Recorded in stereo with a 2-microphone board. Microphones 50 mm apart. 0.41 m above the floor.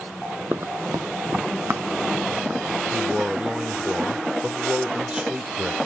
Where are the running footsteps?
50° right (ahead or behind), 0.6 m; by 2.8 s 40° right (ahead or behind), 2.5 m.